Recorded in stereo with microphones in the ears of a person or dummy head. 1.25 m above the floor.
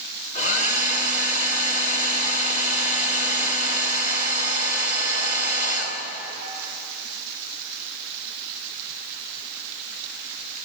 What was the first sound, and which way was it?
A hair dryer, 40° left (ahead or behind).